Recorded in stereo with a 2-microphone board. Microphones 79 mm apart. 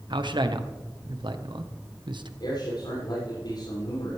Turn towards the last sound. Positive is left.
turn(degrees=75)  # may be behind; listen again after turning